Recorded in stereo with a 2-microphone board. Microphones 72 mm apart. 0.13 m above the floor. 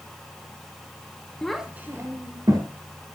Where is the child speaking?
10° left (ahead or behind), 0.9 m; by 2.7 s 60° right (ahead or behind), 2 m.